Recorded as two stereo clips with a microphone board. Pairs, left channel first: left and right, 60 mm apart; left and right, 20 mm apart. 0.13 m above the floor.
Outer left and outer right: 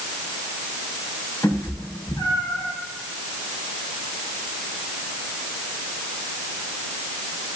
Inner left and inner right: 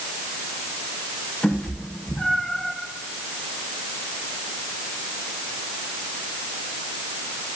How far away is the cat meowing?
About 6.5 m.